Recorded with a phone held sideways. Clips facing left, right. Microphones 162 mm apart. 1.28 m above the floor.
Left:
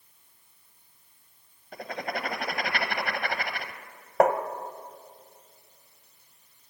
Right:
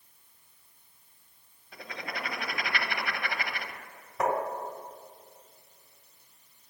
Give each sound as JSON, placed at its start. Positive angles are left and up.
{"t": 1.7, "sound": "writing", "side_deg": 50, "distance_m": 0.8}
{"t": 4.2, "sound": "tapping", "side_deg": 65, "distance_m": 0.8}